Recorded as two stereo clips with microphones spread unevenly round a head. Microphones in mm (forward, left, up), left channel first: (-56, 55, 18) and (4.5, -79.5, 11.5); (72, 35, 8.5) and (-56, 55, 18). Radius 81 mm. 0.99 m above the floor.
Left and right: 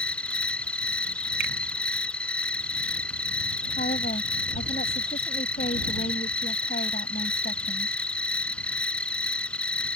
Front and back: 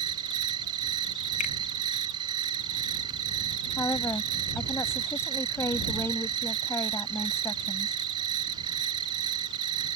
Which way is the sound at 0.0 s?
170° right.